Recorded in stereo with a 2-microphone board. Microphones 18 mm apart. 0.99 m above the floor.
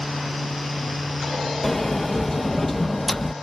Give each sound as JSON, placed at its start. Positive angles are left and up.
{"t": 1.6, "sound": "a sliding door", "side_deg": 20}